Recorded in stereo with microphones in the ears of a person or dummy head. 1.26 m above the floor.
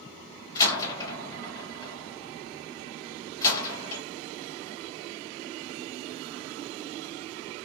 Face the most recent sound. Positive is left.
turn(degrees=25)  # may be behind; listen again after turning